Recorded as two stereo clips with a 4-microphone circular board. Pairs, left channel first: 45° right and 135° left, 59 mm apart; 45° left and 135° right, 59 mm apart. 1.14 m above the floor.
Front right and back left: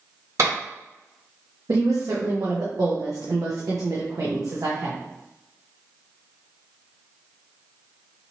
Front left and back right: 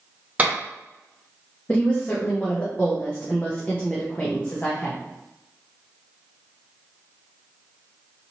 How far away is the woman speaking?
About 0.7 m.